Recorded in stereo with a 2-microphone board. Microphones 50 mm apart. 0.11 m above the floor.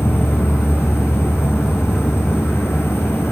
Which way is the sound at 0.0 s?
55° left (ahead or behind).